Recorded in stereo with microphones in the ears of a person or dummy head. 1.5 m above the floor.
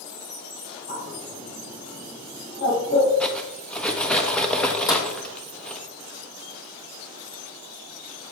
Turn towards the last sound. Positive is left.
turn(degrees=25)  # may be behind; listen again after turning